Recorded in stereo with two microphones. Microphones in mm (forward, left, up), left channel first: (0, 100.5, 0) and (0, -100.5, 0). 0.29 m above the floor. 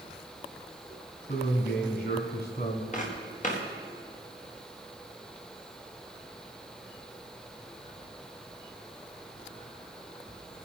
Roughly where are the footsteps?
Left.